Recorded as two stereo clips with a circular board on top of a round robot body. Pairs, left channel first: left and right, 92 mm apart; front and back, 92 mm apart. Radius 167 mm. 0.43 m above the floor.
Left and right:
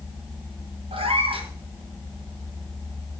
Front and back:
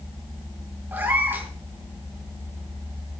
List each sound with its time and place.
0.9 s a cat meowing: 110° right, 2.5 m